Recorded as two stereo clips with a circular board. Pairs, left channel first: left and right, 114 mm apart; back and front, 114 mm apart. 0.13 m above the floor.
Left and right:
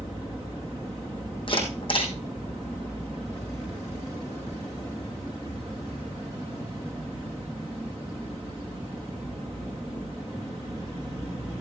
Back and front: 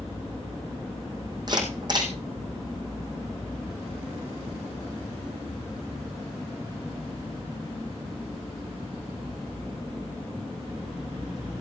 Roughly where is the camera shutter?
Ahead left.